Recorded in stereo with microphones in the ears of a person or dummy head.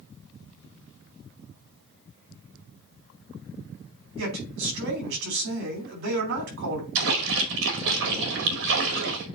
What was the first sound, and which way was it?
A man speaking, 60° right (ahead or behind).